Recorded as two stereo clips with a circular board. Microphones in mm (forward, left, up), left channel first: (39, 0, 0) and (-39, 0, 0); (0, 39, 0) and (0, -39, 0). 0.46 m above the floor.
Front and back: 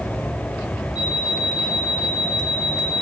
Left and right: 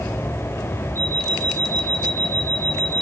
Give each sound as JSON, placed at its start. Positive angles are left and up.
{"t": 0.9, "sound": "an alarm clock", "azimuth_deg": 30, "distance_m": 9.0}